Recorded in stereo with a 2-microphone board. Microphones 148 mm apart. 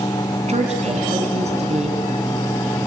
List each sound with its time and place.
0.5 s a woman speaking: 50° right (ahead or behind), 3 m